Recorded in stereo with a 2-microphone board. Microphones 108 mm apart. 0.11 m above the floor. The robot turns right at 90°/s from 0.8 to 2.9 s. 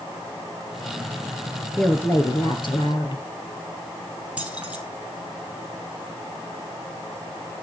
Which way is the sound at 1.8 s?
Straight ahead.